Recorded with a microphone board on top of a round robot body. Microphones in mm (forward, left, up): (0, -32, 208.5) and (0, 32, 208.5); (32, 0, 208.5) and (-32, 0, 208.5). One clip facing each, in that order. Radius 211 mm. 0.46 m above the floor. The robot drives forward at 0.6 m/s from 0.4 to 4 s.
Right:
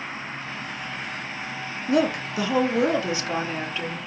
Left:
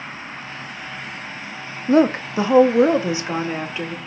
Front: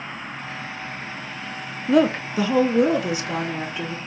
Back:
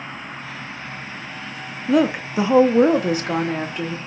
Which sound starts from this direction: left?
A woman speaking, at 1.9 s.